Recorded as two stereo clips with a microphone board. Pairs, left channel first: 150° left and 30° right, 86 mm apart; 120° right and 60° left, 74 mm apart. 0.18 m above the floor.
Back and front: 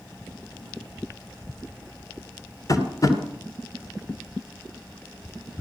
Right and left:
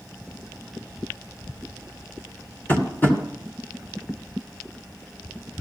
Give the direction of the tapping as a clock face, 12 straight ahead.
6 o'clock.